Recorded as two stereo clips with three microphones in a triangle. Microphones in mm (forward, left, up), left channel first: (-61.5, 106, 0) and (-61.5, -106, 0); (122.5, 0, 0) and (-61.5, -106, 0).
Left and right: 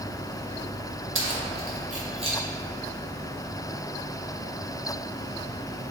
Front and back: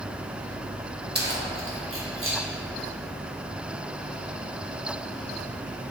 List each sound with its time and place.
1.1 s keys jangling: 110° right, 0.6 m; by 2.4 s 155° right, 1.1 m